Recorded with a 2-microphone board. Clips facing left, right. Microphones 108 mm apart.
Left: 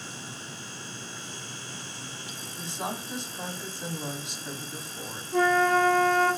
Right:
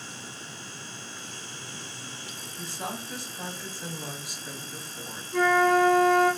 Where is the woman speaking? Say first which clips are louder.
Left 2 dB; 20° left (ahead or behind), 1.1 m.